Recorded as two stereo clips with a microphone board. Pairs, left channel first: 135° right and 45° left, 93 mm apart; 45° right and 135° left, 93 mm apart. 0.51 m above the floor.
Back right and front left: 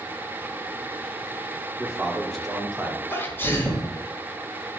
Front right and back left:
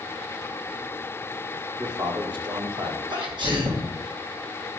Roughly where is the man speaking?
Behind left.